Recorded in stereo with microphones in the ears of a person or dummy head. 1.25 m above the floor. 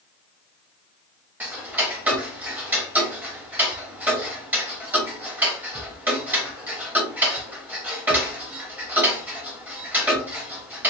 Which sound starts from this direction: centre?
Ticking, at 1.4 s.